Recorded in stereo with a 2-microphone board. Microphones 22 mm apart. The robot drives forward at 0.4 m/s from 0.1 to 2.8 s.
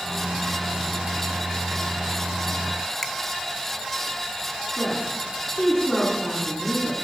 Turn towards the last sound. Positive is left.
turn(degrees=45)  # may be behind; listen again after turning